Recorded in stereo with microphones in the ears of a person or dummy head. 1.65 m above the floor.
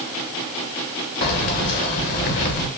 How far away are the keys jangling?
About 1.0 m.